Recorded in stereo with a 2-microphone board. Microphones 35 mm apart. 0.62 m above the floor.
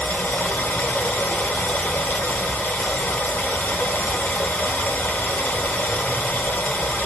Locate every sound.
0.0 s running water: 75° left (ahead or behind), 0.7 m